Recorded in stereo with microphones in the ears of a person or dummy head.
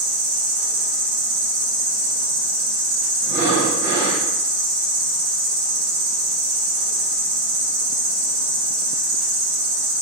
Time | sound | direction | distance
0.0 | an insect | 40° right (ahead or behind) | 1.6 m
3.2 | breathing | 15° right (ahead or behind) | 2.0 m